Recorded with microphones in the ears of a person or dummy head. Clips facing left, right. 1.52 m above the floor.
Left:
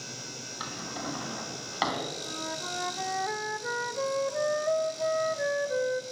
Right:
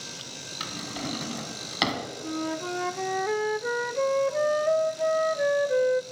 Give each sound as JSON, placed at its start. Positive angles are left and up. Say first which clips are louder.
{"t": 0.6, "sound": "a drawer", "louder": "right 3 dB", "side_deg": -35, "distance_m": 2.5}
{"t": 2.2, "sound": "a flute", "louder": "right 8 dB", "side_deg": -45, "distance_m": 0.6}